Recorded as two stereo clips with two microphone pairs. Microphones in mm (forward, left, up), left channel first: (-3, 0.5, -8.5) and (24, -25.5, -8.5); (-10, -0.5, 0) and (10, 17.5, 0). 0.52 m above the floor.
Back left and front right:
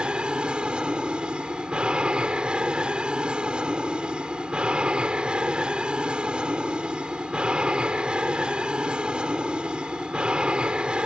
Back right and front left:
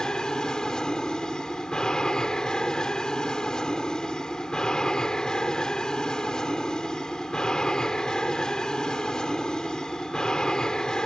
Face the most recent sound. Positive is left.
turn(degrees=-90)